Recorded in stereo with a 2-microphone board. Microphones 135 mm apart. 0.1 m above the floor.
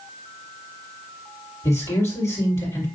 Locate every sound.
1.6 s a man speaking: 25° left (ahead or behind), 3 m